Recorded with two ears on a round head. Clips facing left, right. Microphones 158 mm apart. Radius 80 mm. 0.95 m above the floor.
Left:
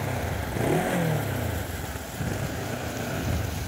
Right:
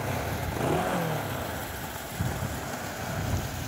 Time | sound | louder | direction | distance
0.0 | a motorcycle | left 1 dB | 5° left (ahead or behind) | ?